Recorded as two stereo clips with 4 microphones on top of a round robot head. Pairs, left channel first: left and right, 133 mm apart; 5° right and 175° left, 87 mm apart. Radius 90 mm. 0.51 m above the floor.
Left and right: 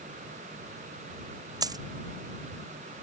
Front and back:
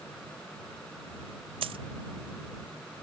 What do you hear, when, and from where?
1.6 s a dropped coin: 150° right